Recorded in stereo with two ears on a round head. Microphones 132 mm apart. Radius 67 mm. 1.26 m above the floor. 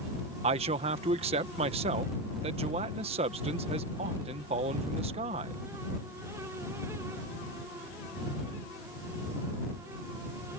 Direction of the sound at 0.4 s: 40° right (ahead or behind).